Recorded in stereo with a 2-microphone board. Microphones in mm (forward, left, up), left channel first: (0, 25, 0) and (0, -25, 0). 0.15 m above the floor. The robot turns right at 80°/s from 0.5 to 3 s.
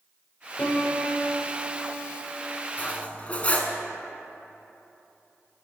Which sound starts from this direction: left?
Cutlery clinking, at 2.8 s.